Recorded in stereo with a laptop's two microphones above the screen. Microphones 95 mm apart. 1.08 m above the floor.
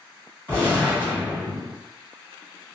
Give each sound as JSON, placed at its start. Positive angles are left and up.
{"t": 0.5, "sound": "a gunshot", "side_deg": 20, "distance_m": 1.4}